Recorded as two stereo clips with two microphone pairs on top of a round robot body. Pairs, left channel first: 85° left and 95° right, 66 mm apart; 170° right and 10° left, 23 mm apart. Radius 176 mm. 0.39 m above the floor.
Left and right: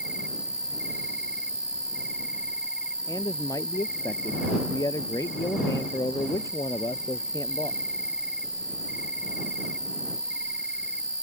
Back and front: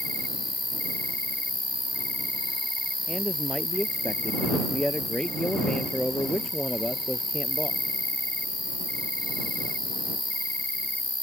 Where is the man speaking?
130° left.